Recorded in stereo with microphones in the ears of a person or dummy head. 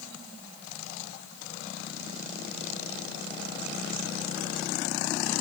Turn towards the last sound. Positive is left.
No sound to turn to.